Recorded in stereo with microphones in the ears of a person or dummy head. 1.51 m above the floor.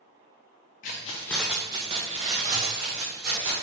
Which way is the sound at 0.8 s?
40° left (ahead or behind).